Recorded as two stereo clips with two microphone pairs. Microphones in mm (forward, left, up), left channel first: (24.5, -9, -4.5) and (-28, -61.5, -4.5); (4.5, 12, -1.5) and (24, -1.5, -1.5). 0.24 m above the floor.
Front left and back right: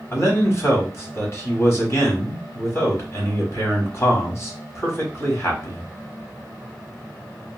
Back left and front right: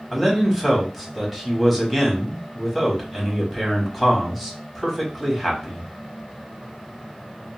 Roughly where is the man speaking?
Ahead left.